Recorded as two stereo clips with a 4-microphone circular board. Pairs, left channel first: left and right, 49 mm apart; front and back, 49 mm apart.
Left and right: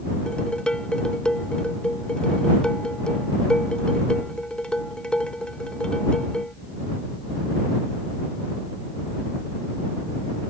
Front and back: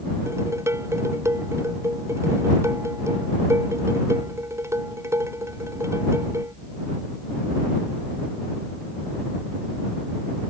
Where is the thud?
No thud in this recording.